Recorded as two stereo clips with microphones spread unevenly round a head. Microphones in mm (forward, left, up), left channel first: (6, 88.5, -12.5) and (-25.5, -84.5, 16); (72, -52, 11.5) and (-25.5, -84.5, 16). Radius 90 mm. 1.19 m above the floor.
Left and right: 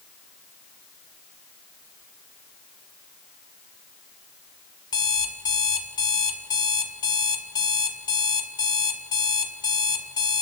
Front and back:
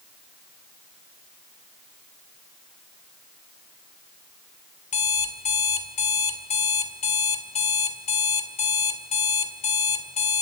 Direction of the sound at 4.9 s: 5° left.